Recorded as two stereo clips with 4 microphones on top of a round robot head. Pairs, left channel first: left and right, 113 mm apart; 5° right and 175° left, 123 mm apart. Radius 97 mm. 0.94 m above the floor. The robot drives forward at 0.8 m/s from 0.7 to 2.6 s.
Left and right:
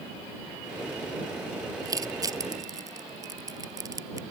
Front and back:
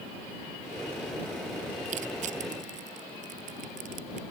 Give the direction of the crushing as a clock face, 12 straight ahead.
5 o'clock.